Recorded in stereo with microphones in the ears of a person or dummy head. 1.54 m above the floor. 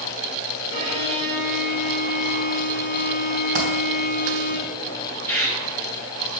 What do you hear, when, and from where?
0.7 s a violin: 40° left (ahead or behind), 3 m
3.5 s a dropped coin: 45° right (ahead or behind), 2.5 m
5.3 s a bird: 10° left (ahead or behind), 1.2 m